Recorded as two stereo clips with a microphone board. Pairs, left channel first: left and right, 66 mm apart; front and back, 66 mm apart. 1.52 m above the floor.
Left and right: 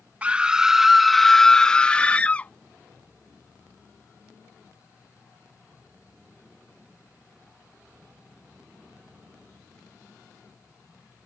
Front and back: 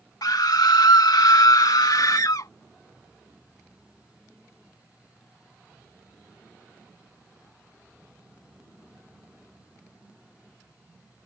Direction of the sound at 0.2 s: 20° right.